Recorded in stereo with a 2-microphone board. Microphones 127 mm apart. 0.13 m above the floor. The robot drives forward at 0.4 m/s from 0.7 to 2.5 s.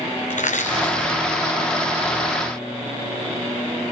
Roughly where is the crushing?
Left.